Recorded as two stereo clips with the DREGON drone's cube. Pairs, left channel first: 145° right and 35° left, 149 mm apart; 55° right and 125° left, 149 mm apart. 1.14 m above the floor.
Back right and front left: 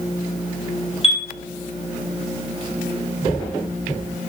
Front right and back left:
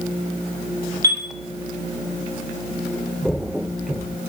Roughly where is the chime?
Behind.